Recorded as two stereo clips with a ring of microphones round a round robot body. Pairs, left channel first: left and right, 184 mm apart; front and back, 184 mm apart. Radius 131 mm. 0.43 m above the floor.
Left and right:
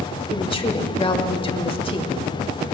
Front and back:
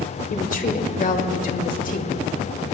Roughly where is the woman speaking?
Ahead left.